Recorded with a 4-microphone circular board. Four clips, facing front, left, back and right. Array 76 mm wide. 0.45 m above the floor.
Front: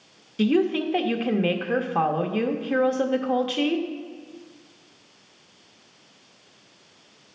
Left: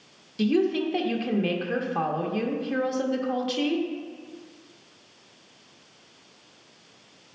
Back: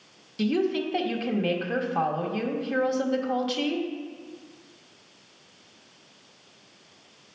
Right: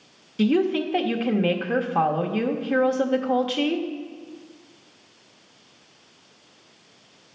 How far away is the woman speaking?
About 0.8 m.